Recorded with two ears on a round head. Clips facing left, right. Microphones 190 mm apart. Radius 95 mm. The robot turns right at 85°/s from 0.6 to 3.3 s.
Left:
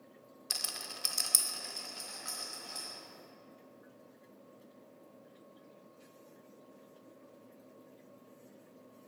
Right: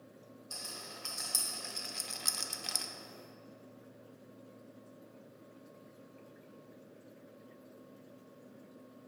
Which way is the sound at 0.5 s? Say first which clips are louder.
Left 1 dB; 85° left.